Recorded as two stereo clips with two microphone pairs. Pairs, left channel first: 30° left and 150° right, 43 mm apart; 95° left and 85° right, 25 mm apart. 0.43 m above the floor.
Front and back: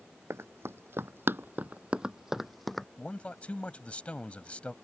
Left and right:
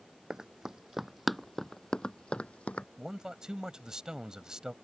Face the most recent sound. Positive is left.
turn(degrees=-30)